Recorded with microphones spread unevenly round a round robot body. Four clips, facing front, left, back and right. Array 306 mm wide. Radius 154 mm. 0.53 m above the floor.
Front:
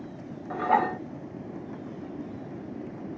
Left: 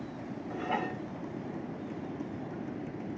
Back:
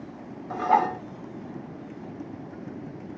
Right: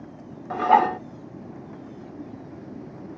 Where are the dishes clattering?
85° right.